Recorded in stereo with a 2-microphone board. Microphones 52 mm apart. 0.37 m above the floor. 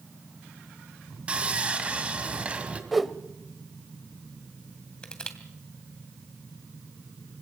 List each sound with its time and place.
1.3 s sawing: 25° right (ahead or behind), 2.5 m
2.9 s a whoosh: centre (ahead or behind), 1.0 m
5.0 s crushing: 15° left (ahead or behind), 2.5 m